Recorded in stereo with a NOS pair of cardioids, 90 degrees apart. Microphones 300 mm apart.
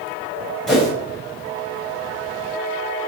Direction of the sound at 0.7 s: Straight ahead.